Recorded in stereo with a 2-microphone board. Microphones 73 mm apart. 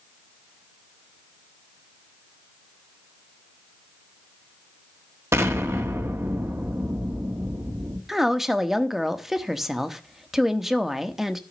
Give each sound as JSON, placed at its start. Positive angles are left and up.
{"t": 5.3, "sound": "an explosion", "side_deg": -35, "distance_m": 1.4}
{"t": 8.1, "sound": "a woman speaking", "side_deg": -5, "distance_m": 1.1}